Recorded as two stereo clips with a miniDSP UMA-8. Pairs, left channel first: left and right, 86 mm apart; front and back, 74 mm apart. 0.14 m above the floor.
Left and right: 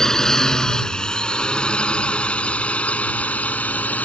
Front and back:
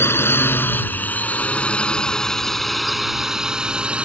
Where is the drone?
10° left; by 4.1 s 130° left.